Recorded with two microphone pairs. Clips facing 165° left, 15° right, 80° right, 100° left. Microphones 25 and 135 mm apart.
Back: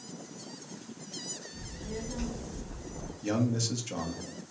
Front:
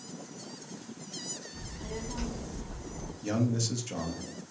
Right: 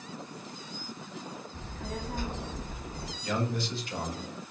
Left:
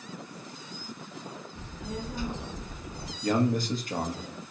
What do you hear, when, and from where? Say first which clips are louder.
1.5 s a child speaking: even, left 2 dB; 40° right, 2.5 m
3.2 s a man speaking: back 1 dB, left 7 dB; 85° left, 1.1 m